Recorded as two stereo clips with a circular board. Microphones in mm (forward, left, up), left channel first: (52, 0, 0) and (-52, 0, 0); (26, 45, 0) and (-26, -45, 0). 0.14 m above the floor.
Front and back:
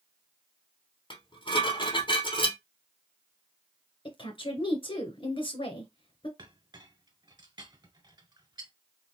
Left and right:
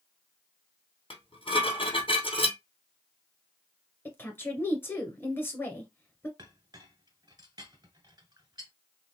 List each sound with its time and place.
1.1 s dishes clattering: 35° left, 3 m
4.0 s a woman speaking: straight ahead, 1.8 m
6.4 s a clink: 155° right, 1.4 m